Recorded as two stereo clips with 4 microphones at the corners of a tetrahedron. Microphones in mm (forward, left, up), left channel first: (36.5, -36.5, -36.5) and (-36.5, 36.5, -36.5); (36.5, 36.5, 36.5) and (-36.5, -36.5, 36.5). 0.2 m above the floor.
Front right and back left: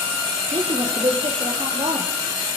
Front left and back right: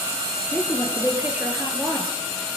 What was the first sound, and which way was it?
A woman speaking, 145° left.